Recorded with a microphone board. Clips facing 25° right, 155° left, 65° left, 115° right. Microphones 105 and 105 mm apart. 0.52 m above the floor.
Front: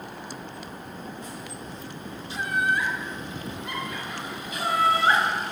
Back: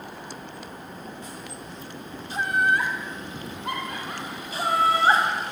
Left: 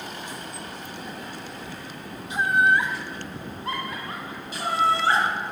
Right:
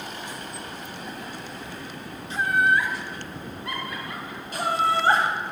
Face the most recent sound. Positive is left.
turn(degrees=-150)